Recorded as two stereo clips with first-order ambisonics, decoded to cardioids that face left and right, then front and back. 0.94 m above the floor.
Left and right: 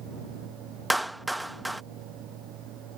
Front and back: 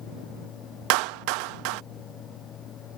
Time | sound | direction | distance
0.9 | a clap | 175° right | ?